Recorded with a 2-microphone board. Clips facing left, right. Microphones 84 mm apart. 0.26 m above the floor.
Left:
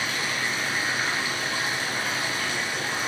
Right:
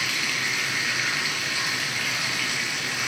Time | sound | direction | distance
0.0 | running water | 35° left (ahead or behind) | 3 m